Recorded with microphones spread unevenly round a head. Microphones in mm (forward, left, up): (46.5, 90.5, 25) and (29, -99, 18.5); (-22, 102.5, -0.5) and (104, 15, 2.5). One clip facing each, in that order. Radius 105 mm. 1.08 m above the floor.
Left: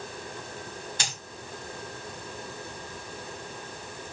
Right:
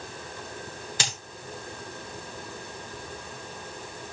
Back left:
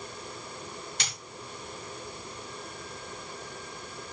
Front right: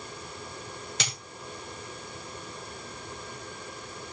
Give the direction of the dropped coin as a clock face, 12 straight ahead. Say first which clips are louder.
Right 3 dB, front right 6 dB; 3 o'clock.